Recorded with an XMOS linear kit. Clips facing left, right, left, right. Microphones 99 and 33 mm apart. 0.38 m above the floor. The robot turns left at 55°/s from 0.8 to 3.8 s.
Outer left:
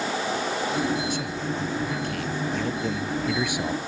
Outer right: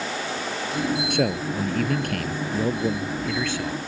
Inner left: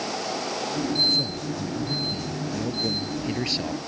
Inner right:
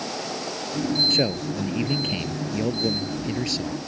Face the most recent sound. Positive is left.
turn(degrees=150)